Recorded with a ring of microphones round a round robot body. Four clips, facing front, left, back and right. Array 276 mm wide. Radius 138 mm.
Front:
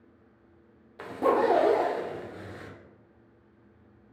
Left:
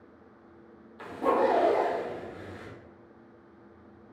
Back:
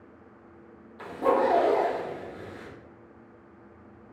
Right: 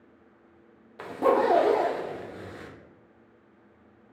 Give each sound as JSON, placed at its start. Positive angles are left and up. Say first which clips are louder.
{"t": 1.0, "sound": "a zipper", "louder": "right 3 dB, back 1 dB", "azimuth_deg": -60, "distance_m": 0.7}